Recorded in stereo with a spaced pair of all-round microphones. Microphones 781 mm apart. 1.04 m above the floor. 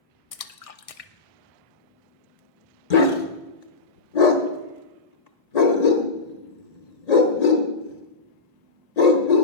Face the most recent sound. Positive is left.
turn(degrees=55)  # may be behind; listen again after turning